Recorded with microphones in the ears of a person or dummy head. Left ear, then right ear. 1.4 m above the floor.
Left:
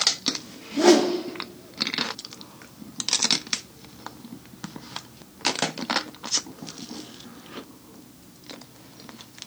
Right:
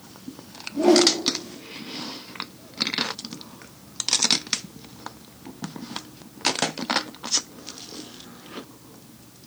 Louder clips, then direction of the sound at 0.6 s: Right 1 dB; 50° left (ahead or behind).